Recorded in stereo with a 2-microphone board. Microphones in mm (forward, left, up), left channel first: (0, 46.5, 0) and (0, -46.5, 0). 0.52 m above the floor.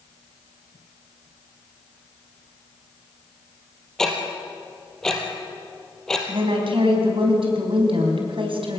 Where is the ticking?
5° left (ahead or behind), 3 m.